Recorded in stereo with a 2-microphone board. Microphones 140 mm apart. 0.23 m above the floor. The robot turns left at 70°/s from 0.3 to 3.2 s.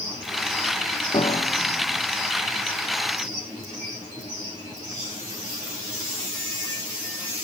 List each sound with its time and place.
1.1 s a piano: 35° left (ahead or behind), 2.5 m; by 2.0 s 80° left, 2.5 m